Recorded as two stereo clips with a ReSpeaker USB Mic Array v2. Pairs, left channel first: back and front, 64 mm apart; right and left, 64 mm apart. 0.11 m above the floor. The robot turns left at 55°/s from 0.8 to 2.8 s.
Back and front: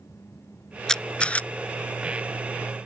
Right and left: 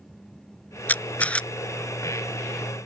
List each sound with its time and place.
0.9 s a camera shutter: 110° right; by 1.5 s 145° right